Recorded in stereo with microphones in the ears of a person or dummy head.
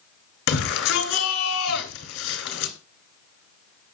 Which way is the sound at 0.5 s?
85° left.